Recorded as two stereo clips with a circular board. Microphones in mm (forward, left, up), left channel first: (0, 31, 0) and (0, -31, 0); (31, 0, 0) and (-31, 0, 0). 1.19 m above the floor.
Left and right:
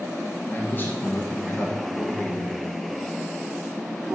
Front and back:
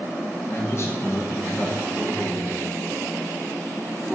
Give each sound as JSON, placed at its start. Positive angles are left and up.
{"t": 0.5, "sound": "a man speaking", "azimuth_deg": 40, "distance_m": 1.5}